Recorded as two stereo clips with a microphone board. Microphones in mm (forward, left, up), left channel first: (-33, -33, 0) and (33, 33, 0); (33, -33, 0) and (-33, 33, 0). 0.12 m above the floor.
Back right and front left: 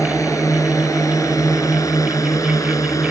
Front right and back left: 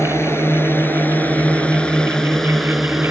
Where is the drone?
95° right; by 3.1 s 145° right.